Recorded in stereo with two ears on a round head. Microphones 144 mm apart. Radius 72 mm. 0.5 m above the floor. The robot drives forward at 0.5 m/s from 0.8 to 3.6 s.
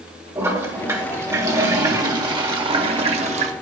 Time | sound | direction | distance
0.3 | a toilet flushing | 20° right (ahead or behind) | 1.8 m